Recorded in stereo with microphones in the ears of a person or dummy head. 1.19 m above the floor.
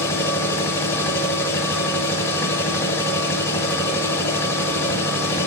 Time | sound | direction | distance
0.0 | a machine running | 10° left (ahead or behind) | 1.8 m